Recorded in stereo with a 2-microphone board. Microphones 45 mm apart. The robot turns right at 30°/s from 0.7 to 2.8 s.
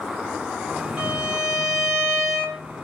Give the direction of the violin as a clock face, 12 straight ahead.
1 o'clock.